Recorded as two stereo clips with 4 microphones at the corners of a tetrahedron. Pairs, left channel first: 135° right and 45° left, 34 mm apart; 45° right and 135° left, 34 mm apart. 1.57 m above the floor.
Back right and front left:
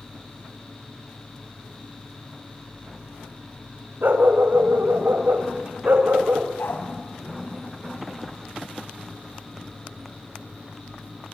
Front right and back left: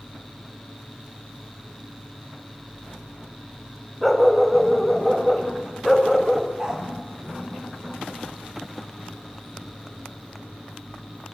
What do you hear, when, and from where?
4.0 s a dog barking: 40° left, 3 m
6.6 s a dog barking: 160° right, 4.5 m